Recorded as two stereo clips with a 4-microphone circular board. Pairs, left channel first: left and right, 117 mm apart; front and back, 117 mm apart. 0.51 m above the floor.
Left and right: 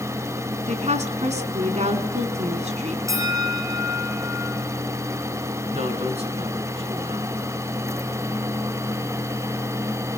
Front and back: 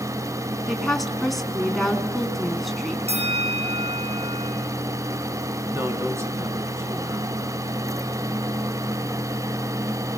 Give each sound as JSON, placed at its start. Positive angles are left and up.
{"t": 0.7, "sound": "a woman speaking", "azimuth_deg": -90, "distance_m": 5.0}
{"t": 3.1, "sound": "a bell", "azimuth_deg": -150, "distance_m": 9.0}
{"t": 5.7, "sound": "a man speaking", "azimuth_deg": -115, "distance_m": 6.0}